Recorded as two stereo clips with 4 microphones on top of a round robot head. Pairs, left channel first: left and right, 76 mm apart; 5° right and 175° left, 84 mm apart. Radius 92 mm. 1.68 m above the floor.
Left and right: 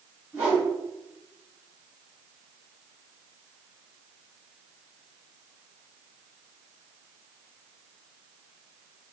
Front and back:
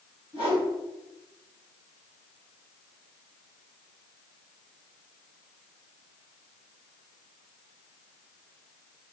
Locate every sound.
0.3 s a whoosh: 135° right, 1.8 m